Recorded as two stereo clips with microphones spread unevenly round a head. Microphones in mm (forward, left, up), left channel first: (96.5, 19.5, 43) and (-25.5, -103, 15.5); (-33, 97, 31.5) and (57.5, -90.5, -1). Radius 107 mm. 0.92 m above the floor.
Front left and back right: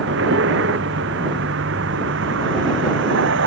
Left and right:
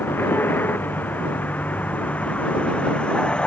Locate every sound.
0.0 s a vehicle: 165° right; by 3.5 s 160° right